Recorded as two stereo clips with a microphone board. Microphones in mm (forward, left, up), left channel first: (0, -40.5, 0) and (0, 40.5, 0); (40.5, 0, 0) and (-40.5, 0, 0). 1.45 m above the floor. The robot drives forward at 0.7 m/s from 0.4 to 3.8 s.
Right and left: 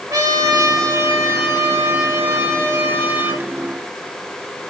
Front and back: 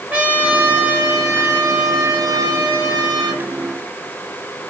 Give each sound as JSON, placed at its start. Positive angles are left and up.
{"t": 0.1, "sound": "a trumpet", "azimuth_deg": 115, "distance_m": 2.0}